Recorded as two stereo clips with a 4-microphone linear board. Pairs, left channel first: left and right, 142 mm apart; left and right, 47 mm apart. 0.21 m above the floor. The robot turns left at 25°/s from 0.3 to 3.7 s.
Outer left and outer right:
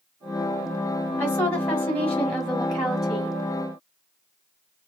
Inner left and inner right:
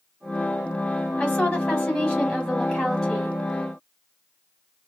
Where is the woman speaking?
15° left (ahead or behind), 1.3 m; by 3.4 s 5° right (ahead or behind), 1.3 m.